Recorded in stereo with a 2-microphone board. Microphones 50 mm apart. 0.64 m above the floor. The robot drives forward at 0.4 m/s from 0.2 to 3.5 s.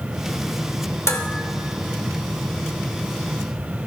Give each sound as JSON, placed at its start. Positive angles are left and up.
{"t": 1.1, "sound": "dishes clattering", "side_deg": 75, "distance_m": 1.2}